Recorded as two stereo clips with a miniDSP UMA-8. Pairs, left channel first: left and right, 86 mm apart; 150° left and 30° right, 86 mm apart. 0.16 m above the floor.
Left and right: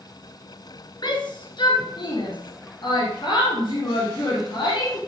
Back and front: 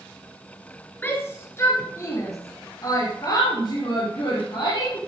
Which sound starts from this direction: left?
A shout, at 1.0 s.